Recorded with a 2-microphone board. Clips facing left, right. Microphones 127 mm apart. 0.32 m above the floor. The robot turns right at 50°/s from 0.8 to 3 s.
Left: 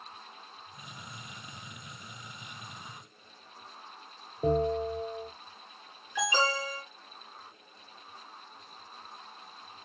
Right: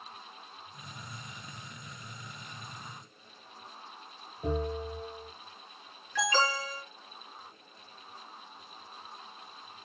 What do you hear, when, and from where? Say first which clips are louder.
4.4 s a bell: left 6 dB; 65° left (ahead or behind), 3 m
6.2 s an alarm: even; 15° left (ahead or behind), 4.5 m